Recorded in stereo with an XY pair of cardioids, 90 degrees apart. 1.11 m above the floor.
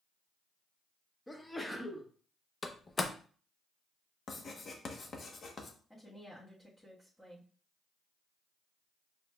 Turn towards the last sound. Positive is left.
turn(degrees=10)